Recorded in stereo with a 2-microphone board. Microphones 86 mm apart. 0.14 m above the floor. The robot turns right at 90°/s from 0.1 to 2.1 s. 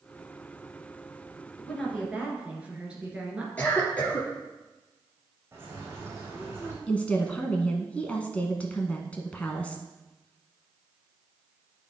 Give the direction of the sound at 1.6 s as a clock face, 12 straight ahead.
7 o'clock.